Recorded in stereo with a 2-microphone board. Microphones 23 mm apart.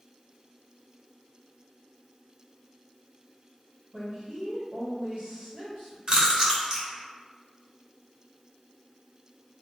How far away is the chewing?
About 1.0 m.